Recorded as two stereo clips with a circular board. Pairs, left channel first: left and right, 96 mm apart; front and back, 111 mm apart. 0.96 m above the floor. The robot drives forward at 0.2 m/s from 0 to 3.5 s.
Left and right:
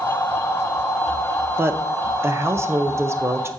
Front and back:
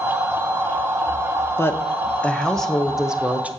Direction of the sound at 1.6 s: 50° right.